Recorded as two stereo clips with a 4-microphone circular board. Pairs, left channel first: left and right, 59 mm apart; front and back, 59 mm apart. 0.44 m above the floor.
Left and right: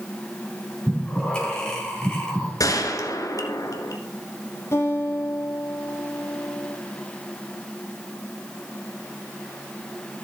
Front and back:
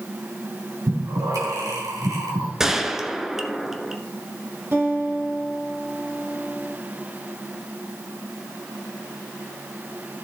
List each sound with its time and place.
0.9 s breathing: 165° left, 2.5 m
2.6 s a gunshot: 100° left, 0.9 m
4.7 s a guitar: 130° left, 2.5 m